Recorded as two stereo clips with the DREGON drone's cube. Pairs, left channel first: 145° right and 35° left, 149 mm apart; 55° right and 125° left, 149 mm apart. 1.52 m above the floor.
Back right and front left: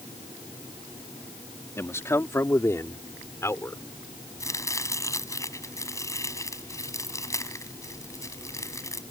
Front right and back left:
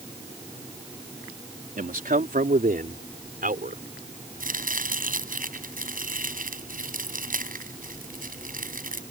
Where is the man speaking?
140° left; by 3.8 s 145° left.